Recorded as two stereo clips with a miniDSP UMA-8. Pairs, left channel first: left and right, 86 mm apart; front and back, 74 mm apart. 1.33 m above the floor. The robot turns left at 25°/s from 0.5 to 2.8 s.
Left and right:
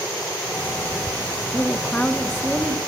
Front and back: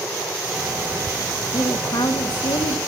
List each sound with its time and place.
1.5 s a woman speaking: 25° left, 1.2 m; by 2.8 s 5° right, 1.2 m